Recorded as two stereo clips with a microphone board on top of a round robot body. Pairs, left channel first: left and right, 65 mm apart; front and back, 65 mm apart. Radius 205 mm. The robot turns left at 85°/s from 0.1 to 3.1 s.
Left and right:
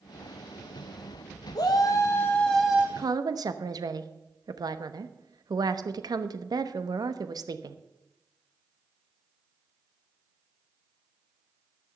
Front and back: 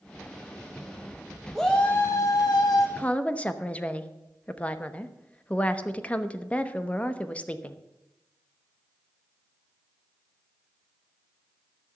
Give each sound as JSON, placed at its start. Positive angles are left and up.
{"t": 1.6, "sound": "a shout", "azimuth_deg": 90, "distance_m": 1.1}
{"t": 3.0, "sound": "a woman speaking", "azimuth_deg": -60, "distance_m": 1.1}